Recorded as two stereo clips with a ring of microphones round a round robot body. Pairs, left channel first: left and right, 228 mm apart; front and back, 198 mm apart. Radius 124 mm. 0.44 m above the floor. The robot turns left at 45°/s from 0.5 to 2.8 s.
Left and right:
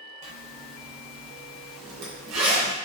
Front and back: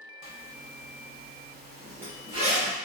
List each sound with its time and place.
0.2 s a zipper: 25° right, 0.8 m; by 2.8 s 130° right, 0.8 m